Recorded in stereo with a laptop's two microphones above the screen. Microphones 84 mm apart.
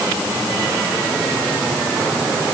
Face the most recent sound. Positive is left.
No sound to turn to.